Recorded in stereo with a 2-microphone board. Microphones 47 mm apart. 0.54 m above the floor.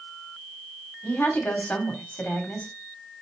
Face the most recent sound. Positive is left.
turn(degrees=40)  # may be behind; listen again after turning